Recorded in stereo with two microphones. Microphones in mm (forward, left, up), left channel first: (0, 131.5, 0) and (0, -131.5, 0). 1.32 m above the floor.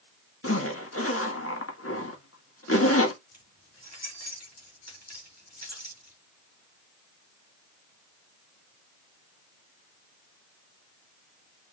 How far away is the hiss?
I don't hear a hiss.